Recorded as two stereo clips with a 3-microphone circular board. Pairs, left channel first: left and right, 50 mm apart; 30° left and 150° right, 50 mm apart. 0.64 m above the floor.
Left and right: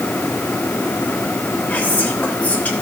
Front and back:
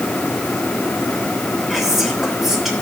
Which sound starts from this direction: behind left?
Whispering, at 1.7 s.